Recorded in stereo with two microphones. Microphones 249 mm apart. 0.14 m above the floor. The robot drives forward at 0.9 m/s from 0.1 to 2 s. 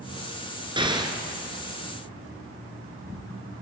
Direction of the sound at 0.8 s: 20° right (ahead or behind).